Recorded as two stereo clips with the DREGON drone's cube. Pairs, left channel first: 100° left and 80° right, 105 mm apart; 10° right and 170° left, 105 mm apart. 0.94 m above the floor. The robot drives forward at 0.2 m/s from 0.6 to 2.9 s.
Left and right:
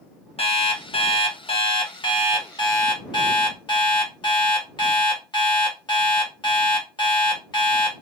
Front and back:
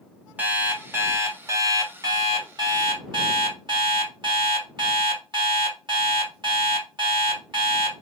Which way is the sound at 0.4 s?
100° left.